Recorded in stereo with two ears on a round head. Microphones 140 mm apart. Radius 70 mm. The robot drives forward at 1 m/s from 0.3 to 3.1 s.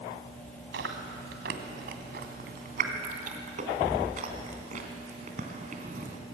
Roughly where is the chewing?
Right.